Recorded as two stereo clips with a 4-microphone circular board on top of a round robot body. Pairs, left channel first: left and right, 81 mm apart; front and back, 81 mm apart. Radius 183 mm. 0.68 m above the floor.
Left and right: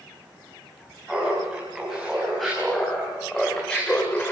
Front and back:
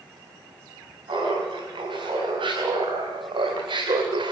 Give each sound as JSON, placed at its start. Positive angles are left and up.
{"t": 1.1, "sound": "laughter", "azimuth_deg": -175, "distance_m": 6.5}